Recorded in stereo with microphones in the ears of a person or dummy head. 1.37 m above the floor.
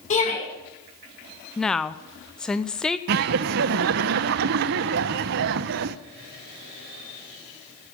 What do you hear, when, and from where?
0.1 s a shout: 40° left (ahead or behind), 7 m
1.6 s a woman speaking: 10° left (ahead or behind), 0.6 m
3.1 s laughter: 55° right (ahead or behind), 0.6 m